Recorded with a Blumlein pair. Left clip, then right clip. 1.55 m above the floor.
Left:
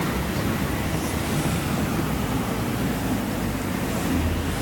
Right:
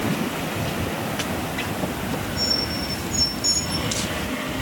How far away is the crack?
I don't hear a crack.